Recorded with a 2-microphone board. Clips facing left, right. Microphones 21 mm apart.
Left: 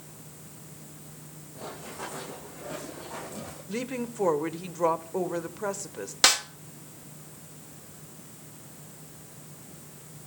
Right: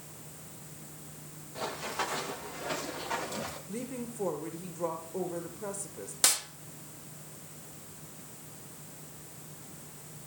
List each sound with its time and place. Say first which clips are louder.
1.6 s running footsteps: right 5 dB; 80° right, 6.5 m
3.7 s a woman speaking: left 6 dB; 50° left (ahead or behind), 1.6 m
6.2 s a snare drum: left 8 dB; 45° left (ahead or behind), 1.5 m